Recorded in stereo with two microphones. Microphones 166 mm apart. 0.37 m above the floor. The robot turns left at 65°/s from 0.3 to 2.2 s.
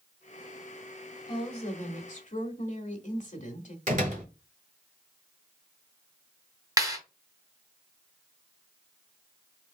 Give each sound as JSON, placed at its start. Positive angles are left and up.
{"t": 1.3, "sound": "a woman speaking", "azimuth_deg": 140, "distance_m": 1.2}
{"t": 3.9, "sound": "a door slam", "side_deg": -50, "distance_m": 1.5}
{"t": 6.8, "sound": "a clap", "side_deg": -20, "distance_m": 2.5}